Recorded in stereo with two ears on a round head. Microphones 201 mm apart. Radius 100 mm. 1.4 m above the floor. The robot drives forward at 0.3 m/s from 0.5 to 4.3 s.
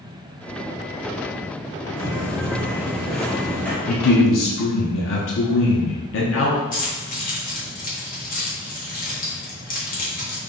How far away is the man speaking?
About 0.7 m.